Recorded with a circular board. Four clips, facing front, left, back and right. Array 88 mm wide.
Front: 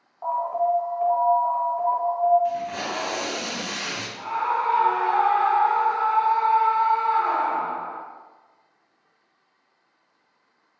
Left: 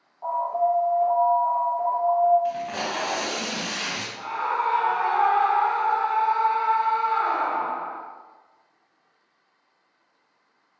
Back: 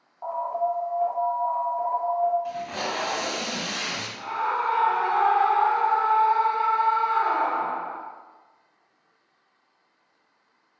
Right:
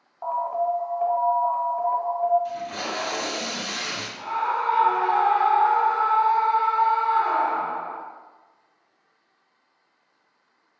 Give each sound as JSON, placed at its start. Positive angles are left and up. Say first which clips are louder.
{"t": 0.2, "sound": "an alarm", "louder": "left 1 dB, front 3 dB", "azimuth_deg": -80, "distance_m": 0.8}
{"t": 2.5, "sound": "tape being pulled", "louder": "left 3 dB, front 3 dB", "azimuth_deg": 95, "distance_m": 0.7}
{"t": 4.2, "sound": "a scream", "louder": "right 1 dB, front 2 dB", "azimuth_deg": 75, "distance_m": 1.7}